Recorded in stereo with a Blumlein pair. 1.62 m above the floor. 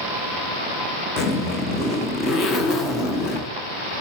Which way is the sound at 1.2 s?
25° left.